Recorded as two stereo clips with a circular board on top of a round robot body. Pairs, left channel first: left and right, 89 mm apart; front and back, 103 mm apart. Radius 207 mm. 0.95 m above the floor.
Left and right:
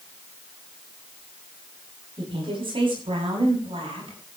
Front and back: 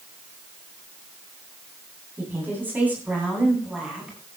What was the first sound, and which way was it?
A woman speaking, 110° right.